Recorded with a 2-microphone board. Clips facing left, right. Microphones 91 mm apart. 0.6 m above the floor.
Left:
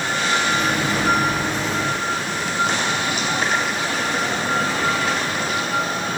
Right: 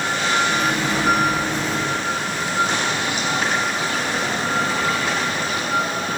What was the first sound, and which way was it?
A microwave, 10° left (ahead or behind).